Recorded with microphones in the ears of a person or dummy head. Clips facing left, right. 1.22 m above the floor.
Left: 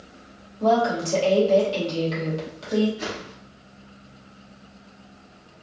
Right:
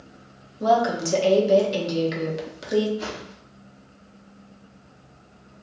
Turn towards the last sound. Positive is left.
turn(degrees=15)  # may be behind; listen again after turning